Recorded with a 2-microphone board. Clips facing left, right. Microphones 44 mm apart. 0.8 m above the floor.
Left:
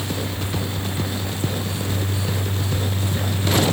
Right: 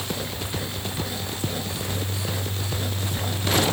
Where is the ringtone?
I don't hear a ringtone.